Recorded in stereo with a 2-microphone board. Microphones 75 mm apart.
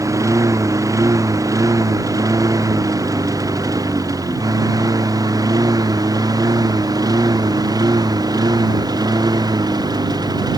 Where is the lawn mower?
45° right (ahead or behind); by 10.6 s 60° right (ahead or behind).